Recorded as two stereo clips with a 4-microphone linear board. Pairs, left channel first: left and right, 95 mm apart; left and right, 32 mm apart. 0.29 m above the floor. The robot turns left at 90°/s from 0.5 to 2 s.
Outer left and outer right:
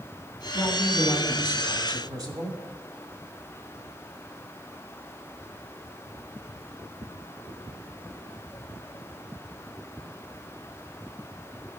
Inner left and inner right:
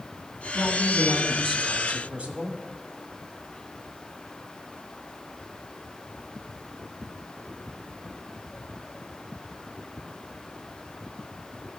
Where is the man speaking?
70° left, 1.7 m; by 2.6 s 65° right, 1.7 m.